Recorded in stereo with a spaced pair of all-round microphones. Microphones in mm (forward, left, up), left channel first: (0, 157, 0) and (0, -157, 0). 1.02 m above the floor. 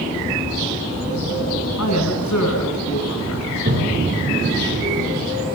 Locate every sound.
1.8 s a woman speaking: 60° left (ahead or behind), 8 m
3.5 s a toilet flushing: 40° right (ahead or behind), 6.5 m